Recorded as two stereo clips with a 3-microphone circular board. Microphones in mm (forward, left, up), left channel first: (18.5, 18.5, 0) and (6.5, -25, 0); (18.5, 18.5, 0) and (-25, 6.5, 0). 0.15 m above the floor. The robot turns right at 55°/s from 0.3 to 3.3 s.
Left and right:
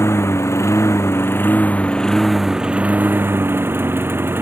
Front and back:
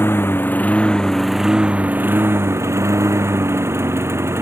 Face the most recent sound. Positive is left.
turn(degrees=-140)